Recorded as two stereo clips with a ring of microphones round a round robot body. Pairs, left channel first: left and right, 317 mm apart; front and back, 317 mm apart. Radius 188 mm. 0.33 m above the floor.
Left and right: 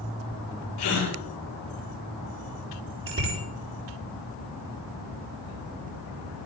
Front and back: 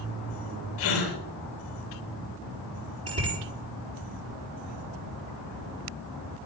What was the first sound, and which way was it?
A gasp, 50° left.